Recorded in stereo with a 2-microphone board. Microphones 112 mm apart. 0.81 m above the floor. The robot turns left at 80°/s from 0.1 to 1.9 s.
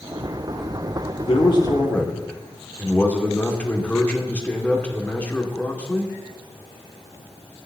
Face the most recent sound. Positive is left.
turn(degrees=15)